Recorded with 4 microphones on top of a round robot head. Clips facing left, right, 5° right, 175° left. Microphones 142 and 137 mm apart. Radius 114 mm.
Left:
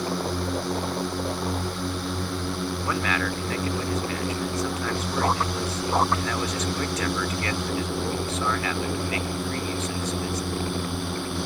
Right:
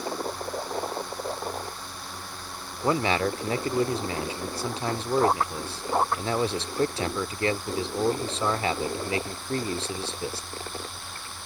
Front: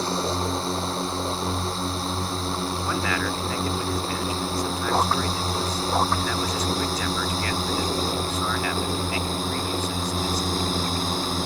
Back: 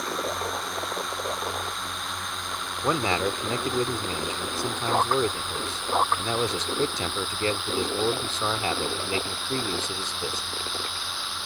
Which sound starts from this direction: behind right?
A man speaking, at 2.8 s.